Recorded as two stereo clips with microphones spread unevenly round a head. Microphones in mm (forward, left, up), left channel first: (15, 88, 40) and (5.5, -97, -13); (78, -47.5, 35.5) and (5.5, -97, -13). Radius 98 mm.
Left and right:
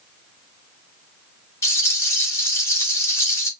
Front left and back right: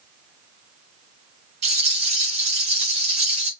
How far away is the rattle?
About 1.4 m.